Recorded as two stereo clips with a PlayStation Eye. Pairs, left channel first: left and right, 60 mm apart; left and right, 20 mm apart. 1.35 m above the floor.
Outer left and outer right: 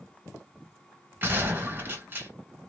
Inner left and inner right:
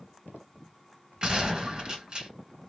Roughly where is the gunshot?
Right.